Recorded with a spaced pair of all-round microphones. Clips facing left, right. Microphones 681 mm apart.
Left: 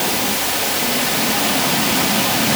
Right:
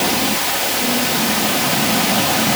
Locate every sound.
Only background noise.